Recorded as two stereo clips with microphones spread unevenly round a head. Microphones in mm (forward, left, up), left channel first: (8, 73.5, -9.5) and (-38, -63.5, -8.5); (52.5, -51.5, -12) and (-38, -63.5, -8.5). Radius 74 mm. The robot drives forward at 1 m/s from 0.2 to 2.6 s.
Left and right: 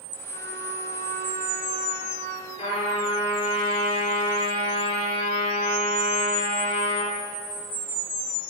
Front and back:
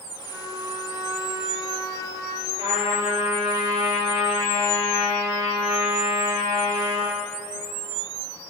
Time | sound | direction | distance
0.3 | a trumpet | 95° right | 3 m
2.6 | a trumpet | 120° left | 6.5 m